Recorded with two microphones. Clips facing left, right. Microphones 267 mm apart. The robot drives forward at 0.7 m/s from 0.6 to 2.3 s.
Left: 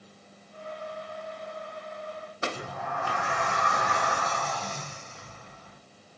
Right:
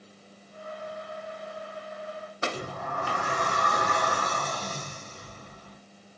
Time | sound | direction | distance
2.5 | a sliding door | 40° right (ahead or behind) | 0.7 m